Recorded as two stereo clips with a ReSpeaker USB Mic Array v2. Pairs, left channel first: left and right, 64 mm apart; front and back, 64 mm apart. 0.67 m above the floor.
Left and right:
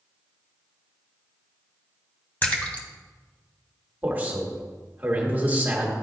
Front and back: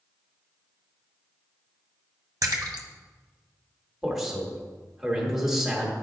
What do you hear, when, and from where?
2.4 s a splash: 155° left, 1.0 m
4.0 s a man speaking: 105° right, 1.3 m